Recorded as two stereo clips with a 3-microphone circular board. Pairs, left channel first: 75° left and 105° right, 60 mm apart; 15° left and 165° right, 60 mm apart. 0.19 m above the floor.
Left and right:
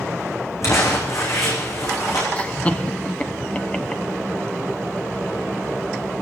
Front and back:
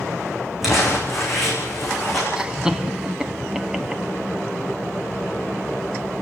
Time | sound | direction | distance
0.6 | crumpling | 110° left | 8.5 m
2.4 | laughter | 125° left | 1.2 m